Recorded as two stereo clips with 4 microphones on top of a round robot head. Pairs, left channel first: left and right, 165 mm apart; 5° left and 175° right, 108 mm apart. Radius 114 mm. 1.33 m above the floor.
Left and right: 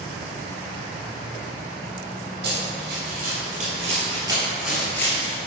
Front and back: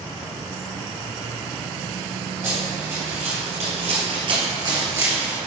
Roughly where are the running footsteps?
Behind right.